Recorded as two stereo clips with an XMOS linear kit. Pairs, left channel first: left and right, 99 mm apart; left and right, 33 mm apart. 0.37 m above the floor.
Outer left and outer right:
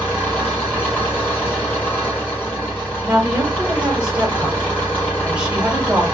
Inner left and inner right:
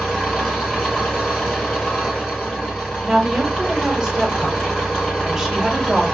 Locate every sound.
0.0 s an engine running: 25° left (ahead or behind), 2.0 m
3.0 s a woman speaking: 10° right (ahead or behind), 0.9 m